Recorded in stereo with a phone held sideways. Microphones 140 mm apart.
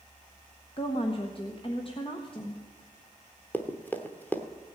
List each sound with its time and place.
0.8 s a woman speaking: 40° left (ahead or behind), 1.1 m
3.5 s running footsteps: 15° left (ahead or behind), 1.1 m